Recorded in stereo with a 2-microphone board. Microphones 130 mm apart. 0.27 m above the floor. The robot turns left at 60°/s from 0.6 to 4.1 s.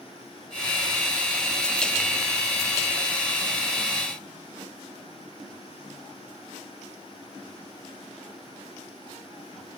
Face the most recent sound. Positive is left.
No sound to turn to.